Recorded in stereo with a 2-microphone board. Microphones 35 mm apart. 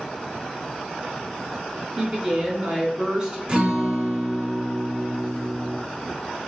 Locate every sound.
2.0 s a woman speaking: 20° right (ahead or behind), 1.2 m
3.5 s a guitar: 25° right (ahead or behind), 1.4 m